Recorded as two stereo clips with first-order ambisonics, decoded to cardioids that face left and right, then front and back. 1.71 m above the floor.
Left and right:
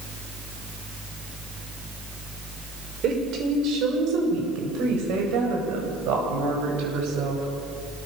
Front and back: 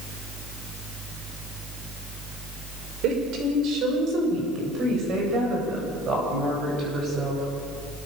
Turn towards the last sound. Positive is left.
turn(degrees=-115)